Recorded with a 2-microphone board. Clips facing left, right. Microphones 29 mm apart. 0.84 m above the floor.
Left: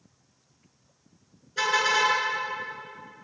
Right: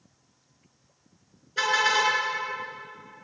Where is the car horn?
10° right (ahead or behind), 6.5 m.